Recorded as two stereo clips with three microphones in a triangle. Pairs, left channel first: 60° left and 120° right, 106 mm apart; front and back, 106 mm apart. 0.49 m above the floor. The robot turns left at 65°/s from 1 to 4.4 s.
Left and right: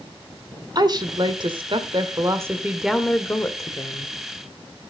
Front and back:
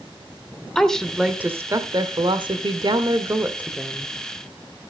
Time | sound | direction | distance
0.8 | a woman speaking | 85° right | 1.2 m